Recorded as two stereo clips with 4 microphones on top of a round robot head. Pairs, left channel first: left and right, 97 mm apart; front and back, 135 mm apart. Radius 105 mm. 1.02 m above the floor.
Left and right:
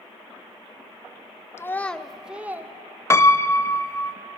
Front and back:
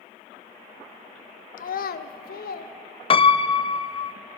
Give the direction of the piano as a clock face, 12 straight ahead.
11 o'clock.